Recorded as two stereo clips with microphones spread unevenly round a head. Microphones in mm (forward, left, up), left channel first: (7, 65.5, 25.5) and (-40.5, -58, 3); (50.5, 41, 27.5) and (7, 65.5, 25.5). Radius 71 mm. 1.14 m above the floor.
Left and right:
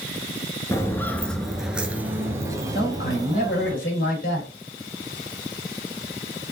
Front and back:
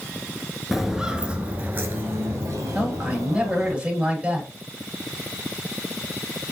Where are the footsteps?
65° left, 1.2 m; by 3.7 s 175° right, 2.5 m.